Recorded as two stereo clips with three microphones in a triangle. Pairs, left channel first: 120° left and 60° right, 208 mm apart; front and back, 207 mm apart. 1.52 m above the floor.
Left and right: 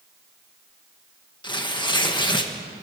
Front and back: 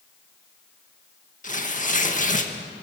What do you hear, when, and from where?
1.4 s tearing paper: 50° left, 1.7 m